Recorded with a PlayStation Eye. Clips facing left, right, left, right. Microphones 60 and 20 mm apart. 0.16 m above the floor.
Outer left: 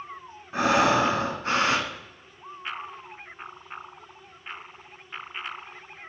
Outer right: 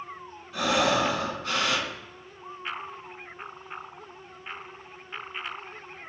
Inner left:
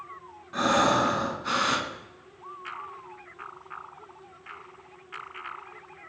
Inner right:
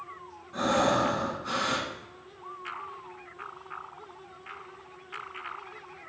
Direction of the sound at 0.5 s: 30° left (ahead or behind).